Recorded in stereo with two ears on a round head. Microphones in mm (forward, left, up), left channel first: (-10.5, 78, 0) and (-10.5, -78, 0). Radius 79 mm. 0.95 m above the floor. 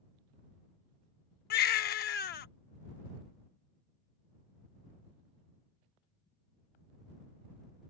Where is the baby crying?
60° left (ahead or behind).